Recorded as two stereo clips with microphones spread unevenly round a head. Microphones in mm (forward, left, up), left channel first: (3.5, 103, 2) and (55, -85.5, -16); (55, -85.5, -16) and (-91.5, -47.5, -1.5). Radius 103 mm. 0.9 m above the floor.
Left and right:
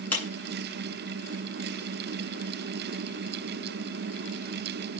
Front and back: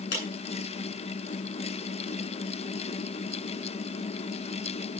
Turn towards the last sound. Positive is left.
turn(degrees=25)